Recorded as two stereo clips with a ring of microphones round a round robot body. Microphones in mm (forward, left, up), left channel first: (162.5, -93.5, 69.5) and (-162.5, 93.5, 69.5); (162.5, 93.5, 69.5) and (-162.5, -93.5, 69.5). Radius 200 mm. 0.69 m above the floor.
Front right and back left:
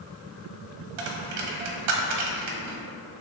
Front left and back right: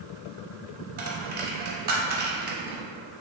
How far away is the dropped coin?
About 0.6 m.